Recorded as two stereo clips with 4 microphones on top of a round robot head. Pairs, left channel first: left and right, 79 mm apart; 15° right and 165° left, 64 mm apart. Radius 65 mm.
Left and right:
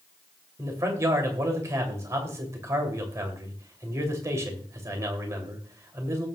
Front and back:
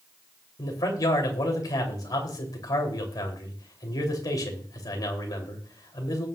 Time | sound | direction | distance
0.6 | a man speaking | 35° right | 3 m